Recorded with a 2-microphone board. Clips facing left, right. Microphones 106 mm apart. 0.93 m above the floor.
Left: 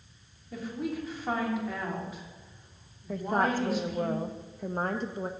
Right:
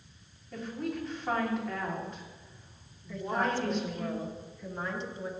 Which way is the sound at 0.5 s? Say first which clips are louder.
Left 2 dB; 5° left (ahead or behind).